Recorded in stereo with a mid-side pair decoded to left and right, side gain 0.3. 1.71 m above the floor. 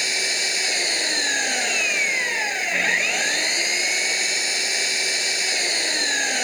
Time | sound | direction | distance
0.0 | an engine running | 5° left | ?